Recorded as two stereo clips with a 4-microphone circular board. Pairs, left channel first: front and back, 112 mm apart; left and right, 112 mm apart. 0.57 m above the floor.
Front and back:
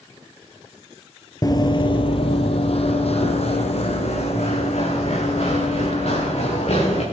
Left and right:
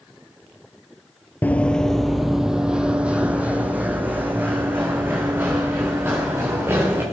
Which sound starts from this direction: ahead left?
Running footsteps, at 1.4 s.